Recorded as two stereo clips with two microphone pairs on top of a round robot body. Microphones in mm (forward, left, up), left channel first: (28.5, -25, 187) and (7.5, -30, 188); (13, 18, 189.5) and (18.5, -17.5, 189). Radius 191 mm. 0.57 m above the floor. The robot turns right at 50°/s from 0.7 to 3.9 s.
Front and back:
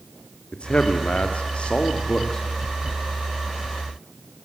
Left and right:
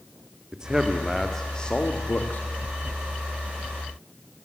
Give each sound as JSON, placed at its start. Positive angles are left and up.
{"t": 0.5, "sound": "a man speaking", "azimuth_deg": -15, "distance_m": 2.5}